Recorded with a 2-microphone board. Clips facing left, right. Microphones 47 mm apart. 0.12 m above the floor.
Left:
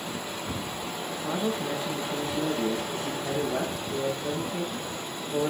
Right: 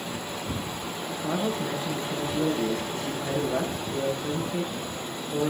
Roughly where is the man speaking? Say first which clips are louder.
Right 1 dB; right.